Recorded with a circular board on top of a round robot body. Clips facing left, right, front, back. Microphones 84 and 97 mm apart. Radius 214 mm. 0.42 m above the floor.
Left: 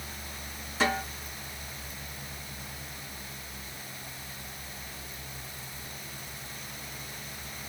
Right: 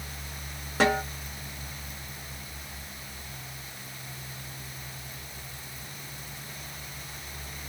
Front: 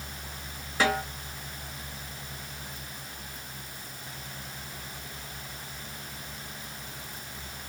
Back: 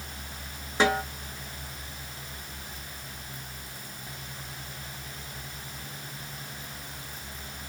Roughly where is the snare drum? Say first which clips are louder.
Right 4 dB, back 2 dB; behind right.